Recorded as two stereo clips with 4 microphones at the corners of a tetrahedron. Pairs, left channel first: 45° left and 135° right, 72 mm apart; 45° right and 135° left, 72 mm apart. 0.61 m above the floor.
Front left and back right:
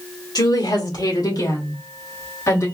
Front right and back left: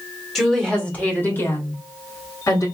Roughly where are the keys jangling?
No keys jangling in this recording.